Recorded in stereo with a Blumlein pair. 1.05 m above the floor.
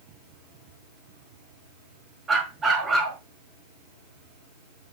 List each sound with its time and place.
2.3 s a dog barking: 15° right, 5.5 m